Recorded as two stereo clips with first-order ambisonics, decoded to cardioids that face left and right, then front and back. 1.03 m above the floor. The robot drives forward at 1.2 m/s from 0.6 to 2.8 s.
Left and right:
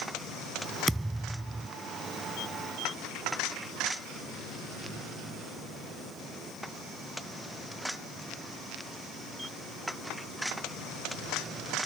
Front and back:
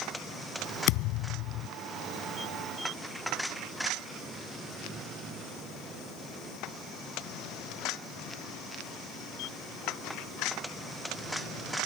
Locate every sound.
0.9 s a thud: 5° right; by 1.7 s 10° right